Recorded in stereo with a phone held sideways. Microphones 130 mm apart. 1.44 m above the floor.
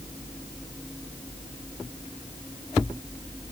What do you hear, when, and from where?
Only background noise.